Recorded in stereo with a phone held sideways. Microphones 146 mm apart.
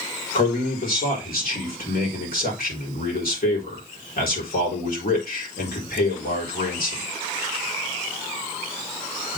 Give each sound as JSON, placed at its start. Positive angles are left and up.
{"t": 0.3, "sound": "a man speaking", "side_deg": 85, "distance_m": 4.0}